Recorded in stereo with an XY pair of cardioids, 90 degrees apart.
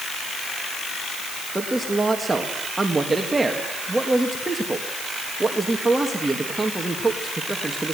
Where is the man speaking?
20° right, 2 m.